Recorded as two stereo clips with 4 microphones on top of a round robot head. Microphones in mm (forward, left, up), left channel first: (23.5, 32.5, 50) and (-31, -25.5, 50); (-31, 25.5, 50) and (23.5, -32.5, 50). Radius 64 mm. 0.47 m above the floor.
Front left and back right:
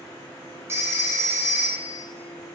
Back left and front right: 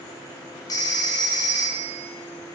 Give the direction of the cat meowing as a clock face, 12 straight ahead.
I don't hear a cat meowing.